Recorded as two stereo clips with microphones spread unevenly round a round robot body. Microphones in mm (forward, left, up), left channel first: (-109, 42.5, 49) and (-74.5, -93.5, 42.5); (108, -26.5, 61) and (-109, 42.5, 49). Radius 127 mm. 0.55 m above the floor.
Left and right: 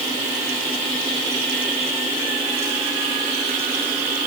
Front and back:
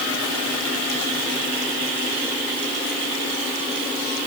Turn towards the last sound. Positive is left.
No sound to turn to.